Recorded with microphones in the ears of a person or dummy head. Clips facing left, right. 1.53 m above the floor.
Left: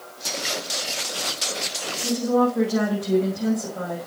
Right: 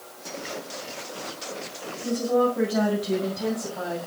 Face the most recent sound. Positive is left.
turn(degrees=50)  # may be behind; listen again after turning